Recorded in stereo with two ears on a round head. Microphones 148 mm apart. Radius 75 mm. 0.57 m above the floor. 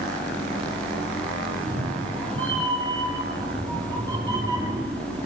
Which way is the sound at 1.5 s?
40° right (ahead or behind).